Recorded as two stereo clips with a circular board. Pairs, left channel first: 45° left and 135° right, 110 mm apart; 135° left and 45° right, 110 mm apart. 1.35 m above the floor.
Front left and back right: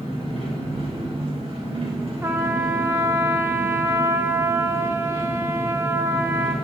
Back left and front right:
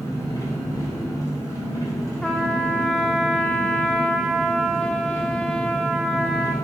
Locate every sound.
0.0 s an engine running: 170° right, 3 m
2.2 s a trumpet: 150° right, 0.9 m